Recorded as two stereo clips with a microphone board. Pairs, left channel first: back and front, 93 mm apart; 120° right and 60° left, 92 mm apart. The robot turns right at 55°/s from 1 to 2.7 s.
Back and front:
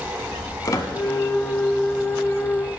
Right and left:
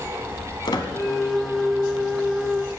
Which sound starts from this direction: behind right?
A squeak, at 0.7 s.